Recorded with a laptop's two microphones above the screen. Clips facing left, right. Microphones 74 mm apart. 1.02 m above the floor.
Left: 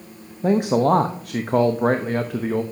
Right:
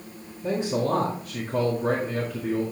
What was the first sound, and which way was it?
A man speaking, 65° left (ahead or behind).